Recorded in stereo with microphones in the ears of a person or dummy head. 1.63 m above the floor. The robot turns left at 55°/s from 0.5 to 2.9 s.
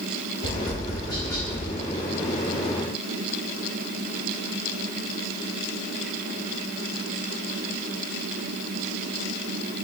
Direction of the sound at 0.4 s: 40° left (ahead or behind).